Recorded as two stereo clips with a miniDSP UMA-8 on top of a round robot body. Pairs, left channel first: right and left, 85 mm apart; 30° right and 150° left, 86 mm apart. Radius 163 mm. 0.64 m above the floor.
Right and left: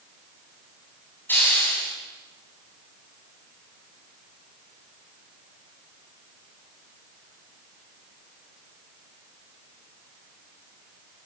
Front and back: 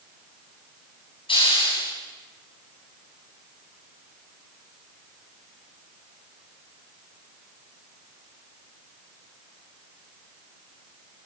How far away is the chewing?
I don't hear chewing.